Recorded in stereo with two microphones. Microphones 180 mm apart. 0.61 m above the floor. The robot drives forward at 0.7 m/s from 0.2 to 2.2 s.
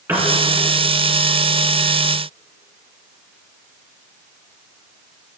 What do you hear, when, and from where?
0.1 s a piano: 15° right (ahead or behind), 3 m